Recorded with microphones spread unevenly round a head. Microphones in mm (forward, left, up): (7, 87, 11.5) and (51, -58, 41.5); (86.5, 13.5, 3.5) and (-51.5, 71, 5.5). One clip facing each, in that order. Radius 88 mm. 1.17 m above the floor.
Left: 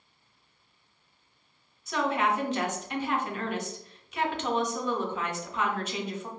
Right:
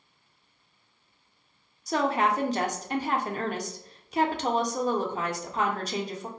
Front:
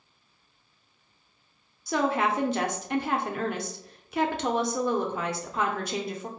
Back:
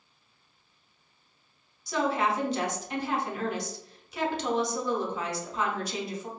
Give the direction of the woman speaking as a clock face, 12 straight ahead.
1 o'clock.